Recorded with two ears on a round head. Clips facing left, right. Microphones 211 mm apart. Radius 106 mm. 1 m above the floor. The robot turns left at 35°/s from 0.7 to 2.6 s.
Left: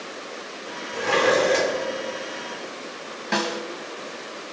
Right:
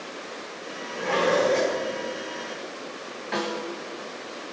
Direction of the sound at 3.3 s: 60° left (ahead or behind).